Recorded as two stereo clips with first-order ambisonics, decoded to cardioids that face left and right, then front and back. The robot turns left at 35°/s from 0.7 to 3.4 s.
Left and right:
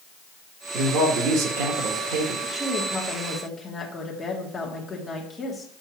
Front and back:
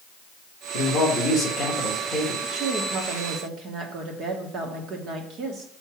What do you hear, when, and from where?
0.7 s a man speaking: 35° right, 1.7 m; by 2.3 s 90° right, 1.7 m
2.4 s a woman speaking: 170° right, 1.4 m; by 5.7 s 155° left, 1.4 m